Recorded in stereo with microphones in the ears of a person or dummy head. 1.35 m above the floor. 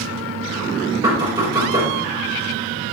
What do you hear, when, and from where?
1.0 s knocking: 25° right (ahead or behind), 4 m